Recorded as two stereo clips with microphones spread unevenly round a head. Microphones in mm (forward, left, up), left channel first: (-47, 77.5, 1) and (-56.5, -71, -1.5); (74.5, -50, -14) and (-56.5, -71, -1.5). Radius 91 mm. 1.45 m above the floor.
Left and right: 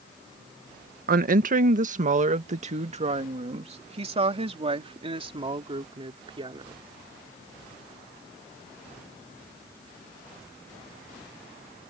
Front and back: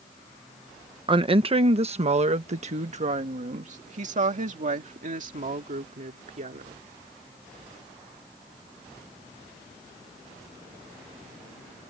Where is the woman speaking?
120° right; by 6.8 s 150° right.